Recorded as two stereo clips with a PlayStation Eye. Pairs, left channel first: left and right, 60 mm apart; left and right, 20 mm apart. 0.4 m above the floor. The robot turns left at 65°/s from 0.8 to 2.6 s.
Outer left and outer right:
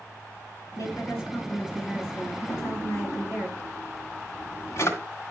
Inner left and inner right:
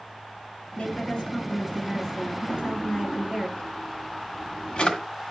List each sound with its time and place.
0.8 s a woman speaking: 75° left, 5 m; by 3.5 s 45° right, 5 m
2.5 s a drawer: 55° left (ahead or behind), 1.6 m; by 5.0 s 50° left (ahead or behind), 1.6 m